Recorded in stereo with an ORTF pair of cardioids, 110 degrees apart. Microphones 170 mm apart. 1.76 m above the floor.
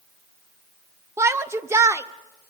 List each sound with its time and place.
1.2 s a shout: 15° right, 1.0 m